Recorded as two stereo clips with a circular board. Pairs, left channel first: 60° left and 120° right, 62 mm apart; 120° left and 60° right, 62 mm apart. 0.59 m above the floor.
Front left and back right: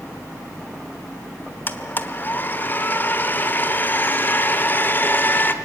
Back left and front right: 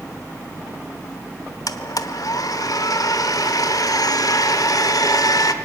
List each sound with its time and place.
1.7 s a blender: 115° left, 1.0 m